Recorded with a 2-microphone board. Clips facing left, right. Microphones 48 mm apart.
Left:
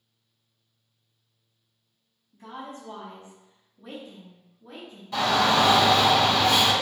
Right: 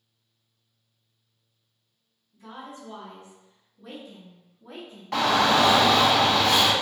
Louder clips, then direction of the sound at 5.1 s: Right 1 dB; 70° right (ahead or behind).